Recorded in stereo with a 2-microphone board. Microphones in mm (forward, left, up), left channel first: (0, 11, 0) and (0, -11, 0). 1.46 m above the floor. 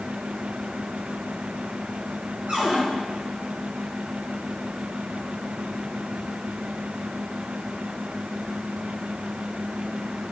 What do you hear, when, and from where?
2.5 s a cupboard door: 60° right (ahead or behind), 2 m